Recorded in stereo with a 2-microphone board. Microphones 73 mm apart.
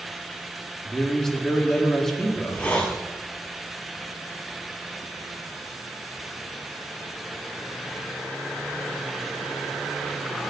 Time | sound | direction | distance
0.8 | a man speaking | 5° left (ahead or behind) | 3.5 m
2.3 | a hiss | 15° left (ahead or behind) | 4.5 m